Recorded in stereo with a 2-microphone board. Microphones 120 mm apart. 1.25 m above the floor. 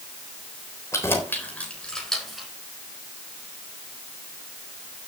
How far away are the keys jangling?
About 3.5 m.